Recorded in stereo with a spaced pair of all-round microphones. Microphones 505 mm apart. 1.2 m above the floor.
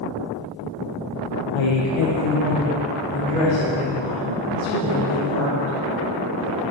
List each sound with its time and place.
1.5 s a woman speaking: 60° left (ahead or behind), 0.6 m; by 5.8 s 30° left (ahead or behind), 4 m